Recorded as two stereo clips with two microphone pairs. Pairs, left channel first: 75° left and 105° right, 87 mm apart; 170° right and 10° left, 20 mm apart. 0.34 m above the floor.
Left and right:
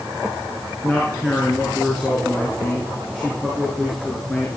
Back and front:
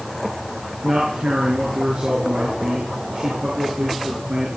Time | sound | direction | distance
0.8 | a man speaking | 10° right | 5.5 m